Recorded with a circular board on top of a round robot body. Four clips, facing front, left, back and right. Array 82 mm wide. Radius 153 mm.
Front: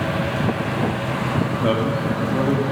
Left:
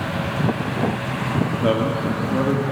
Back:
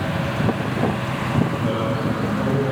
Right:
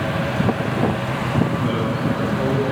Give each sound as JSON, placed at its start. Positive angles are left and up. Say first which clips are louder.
{"t": 1.6, "sound": "a man speaking", "louder": "left 1 dB, front 2 dB", "azimuth_deg": 55, "distance_m": 2.0}